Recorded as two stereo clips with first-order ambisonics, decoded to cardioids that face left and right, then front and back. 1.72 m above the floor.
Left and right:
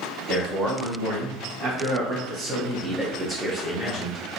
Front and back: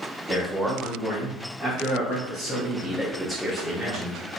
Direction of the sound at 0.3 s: 75° right.